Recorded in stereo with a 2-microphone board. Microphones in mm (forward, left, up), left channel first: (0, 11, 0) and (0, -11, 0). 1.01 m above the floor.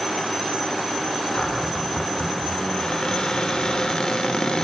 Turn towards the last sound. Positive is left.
turn(degrees=40)  # may be behind; listen again after turning